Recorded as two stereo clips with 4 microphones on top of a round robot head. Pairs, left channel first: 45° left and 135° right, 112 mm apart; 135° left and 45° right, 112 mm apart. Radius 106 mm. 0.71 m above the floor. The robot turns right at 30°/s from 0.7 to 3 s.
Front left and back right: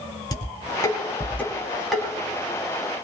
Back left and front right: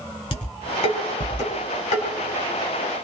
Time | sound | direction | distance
0.3 | dishes clattering | 100° left | 4.5 m